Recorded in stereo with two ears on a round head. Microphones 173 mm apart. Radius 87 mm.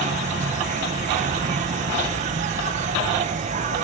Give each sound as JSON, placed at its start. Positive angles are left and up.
{"t": 0.0, "sound": "an insect", "side_deg": -35}